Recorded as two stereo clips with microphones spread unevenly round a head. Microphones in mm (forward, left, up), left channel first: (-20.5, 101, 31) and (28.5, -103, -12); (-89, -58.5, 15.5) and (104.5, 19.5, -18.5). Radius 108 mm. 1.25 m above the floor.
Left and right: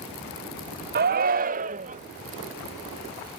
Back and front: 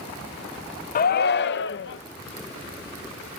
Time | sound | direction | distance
0.9 | a shout | 110° right | ?